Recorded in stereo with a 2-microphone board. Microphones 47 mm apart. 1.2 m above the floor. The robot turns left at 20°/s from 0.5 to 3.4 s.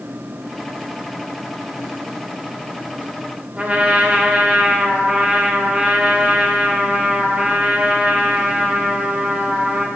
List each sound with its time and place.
3.6 s a trumpet: 30° right (ahead or behind), 1.4 m